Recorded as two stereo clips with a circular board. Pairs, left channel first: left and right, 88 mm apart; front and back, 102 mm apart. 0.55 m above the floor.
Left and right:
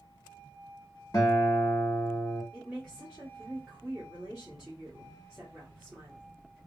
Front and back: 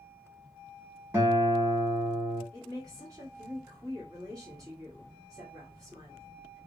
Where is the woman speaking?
165° right, 1.4 m.